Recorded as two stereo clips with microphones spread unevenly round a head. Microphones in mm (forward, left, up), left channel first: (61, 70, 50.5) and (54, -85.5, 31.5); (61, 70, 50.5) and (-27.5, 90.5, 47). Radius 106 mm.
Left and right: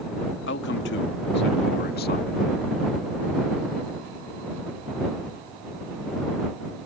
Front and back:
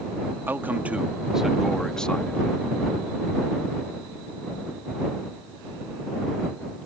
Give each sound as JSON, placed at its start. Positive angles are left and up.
{"t": 0.5, "sound": "a man speaking", "azimuth_deg": 100}